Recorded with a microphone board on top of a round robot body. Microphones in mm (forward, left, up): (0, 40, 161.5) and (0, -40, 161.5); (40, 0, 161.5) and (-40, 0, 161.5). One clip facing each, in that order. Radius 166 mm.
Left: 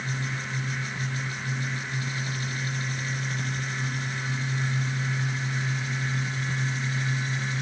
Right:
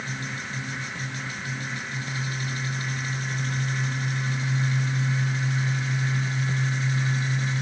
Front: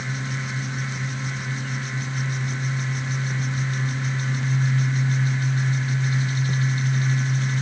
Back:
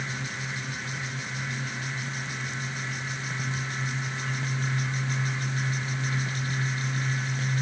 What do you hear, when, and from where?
Only background noise.